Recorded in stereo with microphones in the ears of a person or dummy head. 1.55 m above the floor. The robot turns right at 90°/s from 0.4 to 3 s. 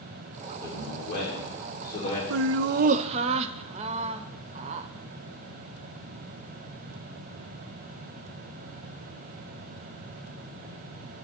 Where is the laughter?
100° right, 0.5 m; by 4.9 s 35° right, 0.5 m.